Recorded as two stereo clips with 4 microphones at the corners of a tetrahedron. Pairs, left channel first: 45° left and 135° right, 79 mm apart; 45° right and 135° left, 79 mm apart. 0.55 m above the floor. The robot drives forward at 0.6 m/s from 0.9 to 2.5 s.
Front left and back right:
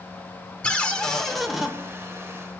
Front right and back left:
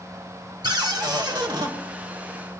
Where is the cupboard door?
120° left, 1.1 m; by 1.7 s 140° left, 1.4 m.